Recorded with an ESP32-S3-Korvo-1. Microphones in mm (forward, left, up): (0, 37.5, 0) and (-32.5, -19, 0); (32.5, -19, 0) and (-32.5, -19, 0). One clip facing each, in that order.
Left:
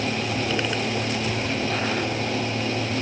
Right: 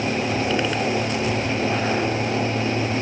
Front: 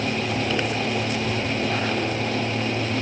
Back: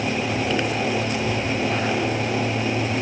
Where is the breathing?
No breathing in this recording.